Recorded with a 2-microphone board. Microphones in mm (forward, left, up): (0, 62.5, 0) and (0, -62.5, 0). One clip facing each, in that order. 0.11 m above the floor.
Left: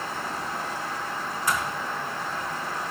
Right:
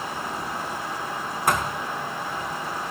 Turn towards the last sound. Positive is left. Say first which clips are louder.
# right 5 dB
turn(degrees=-65)  # may be behind; listen again after turning